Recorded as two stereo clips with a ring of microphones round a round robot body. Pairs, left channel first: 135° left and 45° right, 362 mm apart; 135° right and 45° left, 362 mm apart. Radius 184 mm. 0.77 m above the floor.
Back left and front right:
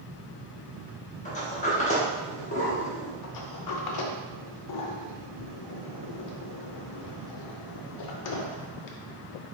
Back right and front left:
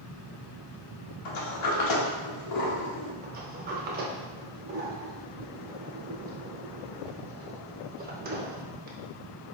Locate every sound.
1.2 s a sliding door: 155° right, 1.1 m
3.2 s a sliding door: 105° left, 0.6 m